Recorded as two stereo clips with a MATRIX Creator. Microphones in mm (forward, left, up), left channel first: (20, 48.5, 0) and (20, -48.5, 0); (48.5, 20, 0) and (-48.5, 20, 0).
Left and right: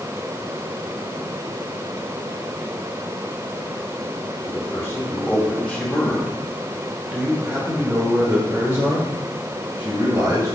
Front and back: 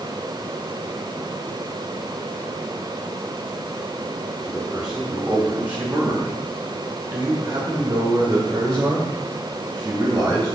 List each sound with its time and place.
4.5 s a man speaking: 100° left, 1.5 m; by 10.6 s 125° right, 3 m